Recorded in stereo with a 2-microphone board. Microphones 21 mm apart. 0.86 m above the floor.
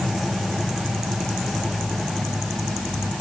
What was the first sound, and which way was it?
Only background noise.